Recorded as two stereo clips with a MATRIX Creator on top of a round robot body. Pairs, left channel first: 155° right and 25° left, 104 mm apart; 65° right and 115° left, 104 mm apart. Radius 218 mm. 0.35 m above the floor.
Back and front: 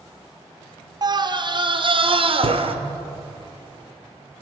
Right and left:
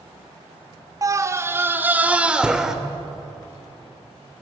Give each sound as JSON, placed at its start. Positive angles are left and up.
{"t": 1.0, "sound": "a scream", "azimuth_deg": 60, "distance_m": 1.8}